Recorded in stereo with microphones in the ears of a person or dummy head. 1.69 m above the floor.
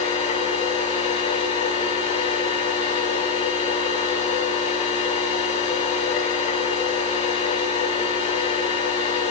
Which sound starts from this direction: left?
A machine running, at 0.0 s.